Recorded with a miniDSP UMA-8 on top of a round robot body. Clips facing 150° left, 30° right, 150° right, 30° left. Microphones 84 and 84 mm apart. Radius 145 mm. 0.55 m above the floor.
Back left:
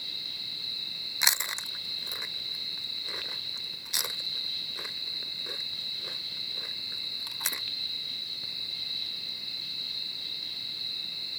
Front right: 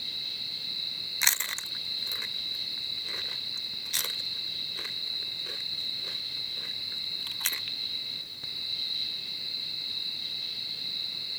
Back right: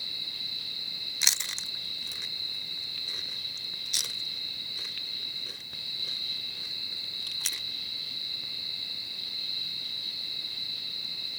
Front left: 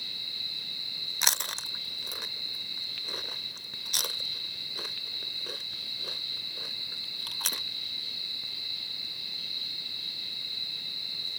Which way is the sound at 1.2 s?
75° left.